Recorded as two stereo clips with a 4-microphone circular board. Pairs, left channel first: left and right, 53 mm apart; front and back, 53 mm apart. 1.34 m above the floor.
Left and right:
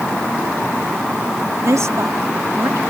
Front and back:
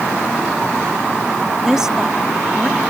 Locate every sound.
1.6 s a woman speaking: 100° right